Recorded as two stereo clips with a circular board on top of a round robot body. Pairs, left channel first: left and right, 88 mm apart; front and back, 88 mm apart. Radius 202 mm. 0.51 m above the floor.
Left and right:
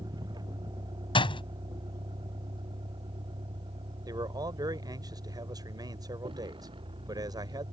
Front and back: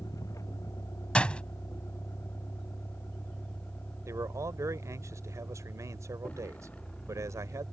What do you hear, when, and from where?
0.0 s a vehicle: 50° right; by 7.8 s 80° right
1.1 s a door slam: 80° left
4.1 s a man speaking: 125° right